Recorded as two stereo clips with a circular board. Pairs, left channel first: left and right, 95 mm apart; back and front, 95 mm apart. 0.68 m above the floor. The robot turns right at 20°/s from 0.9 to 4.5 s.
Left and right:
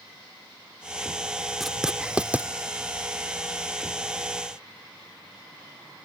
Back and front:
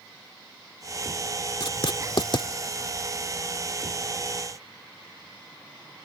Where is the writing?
Straight behind; by 2.5 s 160° right.